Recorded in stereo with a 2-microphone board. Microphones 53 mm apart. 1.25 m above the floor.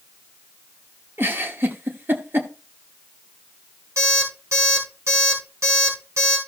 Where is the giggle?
45° right (ahead or behind), 1.2 m.